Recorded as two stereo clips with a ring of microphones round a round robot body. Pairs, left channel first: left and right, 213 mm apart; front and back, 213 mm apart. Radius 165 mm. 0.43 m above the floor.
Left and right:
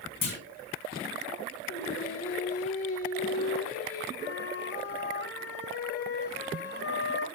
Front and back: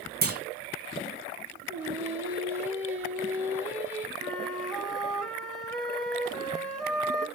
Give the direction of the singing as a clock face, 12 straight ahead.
9 o'clock.